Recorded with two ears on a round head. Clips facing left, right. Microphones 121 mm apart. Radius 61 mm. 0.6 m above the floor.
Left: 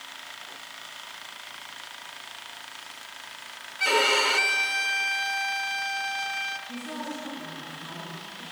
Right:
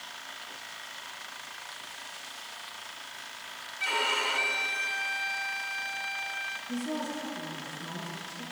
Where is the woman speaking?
20° right (ahead or behind), 8.5 m.